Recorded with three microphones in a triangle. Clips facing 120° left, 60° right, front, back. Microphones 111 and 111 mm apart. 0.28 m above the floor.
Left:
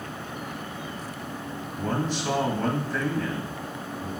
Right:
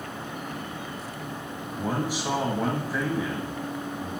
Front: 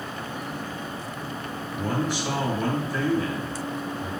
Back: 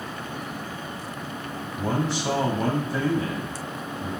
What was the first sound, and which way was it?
A man speaking, 135° right.